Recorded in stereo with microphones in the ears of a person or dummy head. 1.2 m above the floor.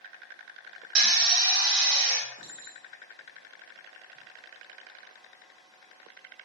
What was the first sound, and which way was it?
A drill, 60° right (ahead or behind).